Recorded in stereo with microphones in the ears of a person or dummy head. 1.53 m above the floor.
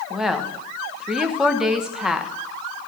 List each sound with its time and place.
0.1 s a woman speaking: 5° right (ahead or behind), 1.0 m